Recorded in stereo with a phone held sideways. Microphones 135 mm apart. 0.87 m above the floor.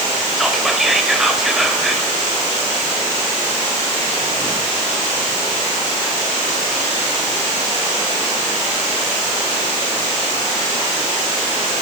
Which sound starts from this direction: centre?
Whispering, at 0.4 s.